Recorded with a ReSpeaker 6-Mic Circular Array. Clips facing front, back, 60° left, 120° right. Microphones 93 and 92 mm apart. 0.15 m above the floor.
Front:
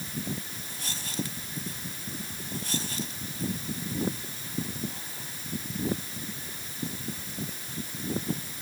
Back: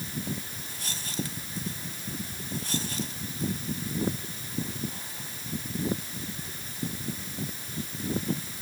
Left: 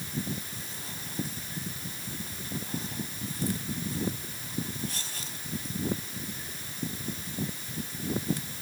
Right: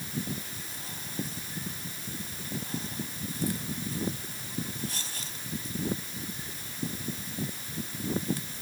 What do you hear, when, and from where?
Only background noise.